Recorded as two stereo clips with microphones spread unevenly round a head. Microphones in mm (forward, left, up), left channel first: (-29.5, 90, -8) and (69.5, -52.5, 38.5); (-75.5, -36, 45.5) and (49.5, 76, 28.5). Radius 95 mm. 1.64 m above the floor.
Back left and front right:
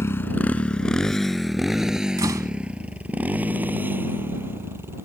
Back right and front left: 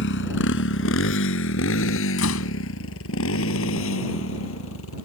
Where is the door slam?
125° right.